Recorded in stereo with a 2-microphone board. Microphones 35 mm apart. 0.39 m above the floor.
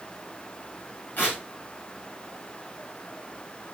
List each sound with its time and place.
1.2 s tearing paper: 50° left (ahead or behind), 9 m